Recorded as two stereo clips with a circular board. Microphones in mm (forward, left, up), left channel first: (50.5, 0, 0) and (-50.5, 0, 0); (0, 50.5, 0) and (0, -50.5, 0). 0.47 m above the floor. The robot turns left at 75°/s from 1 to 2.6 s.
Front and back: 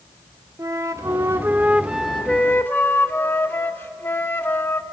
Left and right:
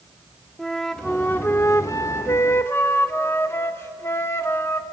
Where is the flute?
170° left, 0.9 m; by 4.8 s 50° left, 0.9 m.